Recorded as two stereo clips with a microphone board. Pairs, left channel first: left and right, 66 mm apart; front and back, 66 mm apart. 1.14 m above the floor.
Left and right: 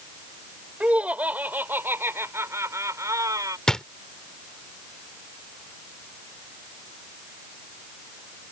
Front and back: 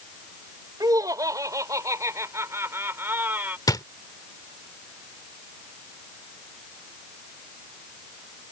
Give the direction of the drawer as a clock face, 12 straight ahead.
12 o'clock.